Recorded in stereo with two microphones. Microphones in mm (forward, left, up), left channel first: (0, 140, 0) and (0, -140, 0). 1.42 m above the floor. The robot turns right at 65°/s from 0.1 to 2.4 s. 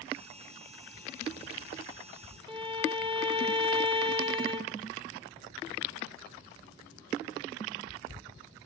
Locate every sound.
2.5 s a violin: 20° right (ahead or behind), 1.7 m